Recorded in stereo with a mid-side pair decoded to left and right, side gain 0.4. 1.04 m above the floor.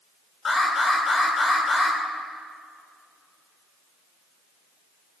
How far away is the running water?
No running water in this recording.